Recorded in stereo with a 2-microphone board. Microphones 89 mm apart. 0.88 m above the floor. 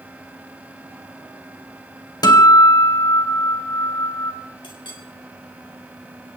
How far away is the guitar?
About 2.5 m.